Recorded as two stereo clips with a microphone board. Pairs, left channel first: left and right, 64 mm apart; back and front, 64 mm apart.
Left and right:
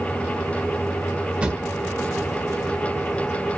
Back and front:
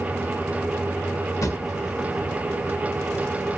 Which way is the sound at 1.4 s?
160° right.